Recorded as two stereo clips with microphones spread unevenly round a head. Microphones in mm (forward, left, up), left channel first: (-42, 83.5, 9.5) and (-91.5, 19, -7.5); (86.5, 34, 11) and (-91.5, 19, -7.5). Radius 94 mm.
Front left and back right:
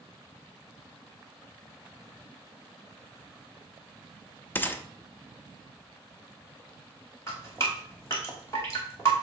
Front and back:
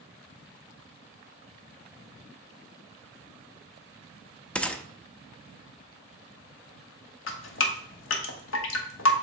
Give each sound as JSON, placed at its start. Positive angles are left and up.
{"t": 4.5, "sound": "a gunshot", "azimuth_deg": 75, "distance_m": 0.6}
{"t": 7.3, "sound": "dripping", "azimuth_deg": -25, "distance_m": 1.0}